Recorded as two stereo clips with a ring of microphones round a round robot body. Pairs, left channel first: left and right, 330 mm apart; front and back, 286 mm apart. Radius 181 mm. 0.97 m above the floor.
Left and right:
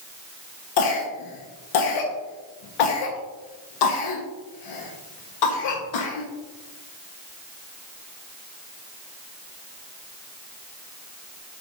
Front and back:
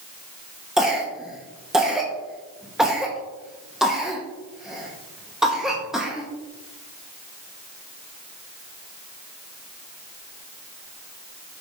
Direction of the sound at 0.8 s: 90° left.